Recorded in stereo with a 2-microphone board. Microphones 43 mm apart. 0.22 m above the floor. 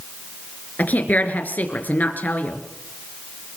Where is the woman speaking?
45° left (ahead or behind), 3 m.